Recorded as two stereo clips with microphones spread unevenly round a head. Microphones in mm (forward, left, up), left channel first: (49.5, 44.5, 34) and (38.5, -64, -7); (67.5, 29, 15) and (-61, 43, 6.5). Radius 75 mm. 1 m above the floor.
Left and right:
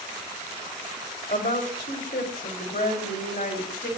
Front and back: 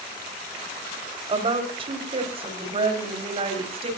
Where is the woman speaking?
125° left, 5 m; by 3.9 s 130° left, 6.5 m.